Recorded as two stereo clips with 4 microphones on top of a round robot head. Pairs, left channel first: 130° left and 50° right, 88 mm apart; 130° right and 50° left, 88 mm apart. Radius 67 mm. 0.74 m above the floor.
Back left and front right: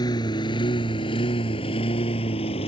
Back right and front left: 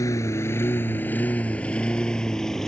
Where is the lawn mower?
175° left; by 2.7 s 145° left.